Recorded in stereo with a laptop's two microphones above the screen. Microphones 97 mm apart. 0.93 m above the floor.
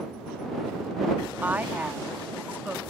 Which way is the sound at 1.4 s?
20° right (ahead or behind).